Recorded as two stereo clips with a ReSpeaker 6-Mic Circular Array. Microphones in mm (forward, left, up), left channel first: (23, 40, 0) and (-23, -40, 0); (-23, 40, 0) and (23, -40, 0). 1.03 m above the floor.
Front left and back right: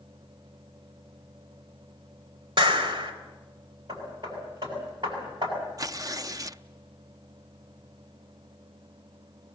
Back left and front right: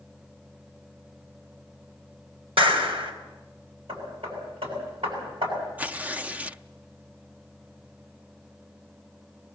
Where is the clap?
80° right, 4 m.